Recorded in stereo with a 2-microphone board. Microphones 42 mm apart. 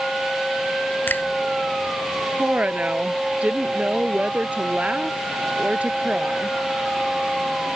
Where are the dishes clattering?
I don't hear dishes clattering.